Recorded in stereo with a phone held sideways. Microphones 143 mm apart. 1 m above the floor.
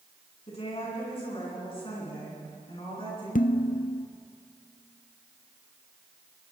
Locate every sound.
0.5 s a woman speaking: 45° left (ahead or behind), 9.5 m; by 3.2 s 40° left (ahead or behind), 12 m
3.4 s dishes clattering: 80° left, 0.7 m